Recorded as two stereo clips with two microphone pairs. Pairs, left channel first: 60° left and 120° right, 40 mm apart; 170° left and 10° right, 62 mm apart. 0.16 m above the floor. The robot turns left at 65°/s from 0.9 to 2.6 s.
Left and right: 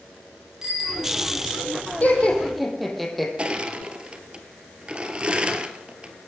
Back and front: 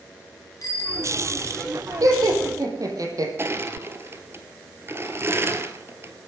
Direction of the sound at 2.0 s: 10° left.